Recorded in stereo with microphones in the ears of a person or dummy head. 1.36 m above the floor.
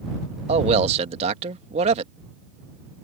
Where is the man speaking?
40° right (ahead or behind).